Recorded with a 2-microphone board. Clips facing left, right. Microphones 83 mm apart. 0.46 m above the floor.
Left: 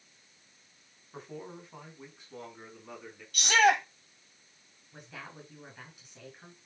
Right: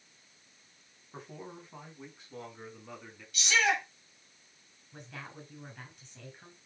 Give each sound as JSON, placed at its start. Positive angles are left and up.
{"t": 1.1, "sound": "a man speaking", "side_deg": 0, "distance_m": 4.0}
{"t": 3.3, "sound": "a shout", "side_deg": 55, "distance_m": 2.5}
{"t": 4.9, "sound": "a woman speaking", "side_deg": 5, "distance_m": 6.0}